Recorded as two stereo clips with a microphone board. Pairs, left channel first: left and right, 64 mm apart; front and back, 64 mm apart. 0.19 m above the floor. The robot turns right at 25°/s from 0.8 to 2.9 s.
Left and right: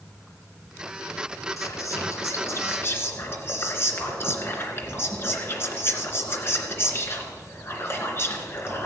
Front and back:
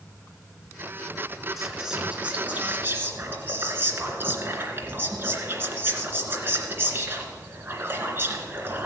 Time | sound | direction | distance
1.6 | whispering | 95° left | 2.5 m